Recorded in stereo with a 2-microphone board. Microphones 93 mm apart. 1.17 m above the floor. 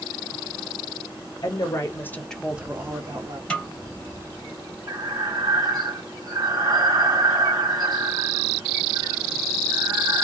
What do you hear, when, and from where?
1.4 s a woman speaking: 45° left (ahead or behind), 1.3 m; by 3.4 s 50° right (ahead or behind), 1.2 m
3.5 s a snare drum: 10° left (ahead or behind), 1.2 m
4.9 s breathing: 45° right (ahead or behind), 1.3 m